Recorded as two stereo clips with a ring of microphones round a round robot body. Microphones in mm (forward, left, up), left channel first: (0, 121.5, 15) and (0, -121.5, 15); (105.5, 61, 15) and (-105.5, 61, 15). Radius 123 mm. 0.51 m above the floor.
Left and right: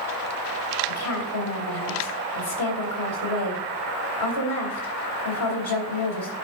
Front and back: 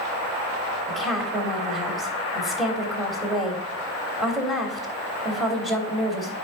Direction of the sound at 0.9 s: 90° left.